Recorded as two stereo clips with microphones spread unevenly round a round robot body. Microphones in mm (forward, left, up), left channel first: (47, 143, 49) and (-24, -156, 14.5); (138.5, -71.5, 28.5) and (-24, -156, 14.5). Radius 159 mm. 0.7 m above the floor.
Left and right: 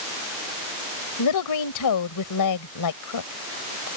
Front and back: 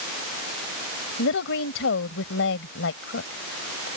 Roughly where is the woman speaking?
Ahead left.